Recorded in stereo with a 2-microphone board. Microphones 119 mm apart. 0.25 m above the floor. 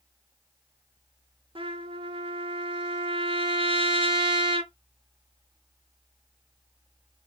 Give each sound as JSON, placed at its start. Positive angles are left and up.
{"t": 1.6, "sound": "a trumpet", "side_deg": -50, "distance_m": 0.5}